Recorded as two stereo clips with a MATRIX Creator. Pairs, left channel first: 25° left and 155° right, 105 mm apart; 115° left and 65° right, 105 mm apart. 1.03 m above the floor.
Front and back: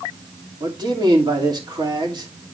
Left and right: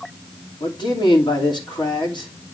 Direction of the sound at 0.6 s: 155° left.